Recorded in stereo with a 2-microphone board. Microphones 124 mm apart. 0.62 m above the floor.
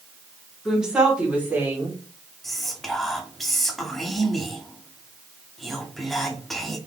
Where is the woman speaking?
5° right (ahead or behind), 1.7 m; by 2.0 s 20° right (ahead or behind), 2.5 m.